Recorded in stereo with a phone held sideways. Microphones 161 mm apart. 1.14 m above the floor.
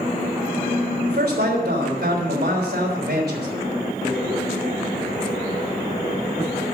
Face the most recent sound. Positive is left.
turn(degrees=-85)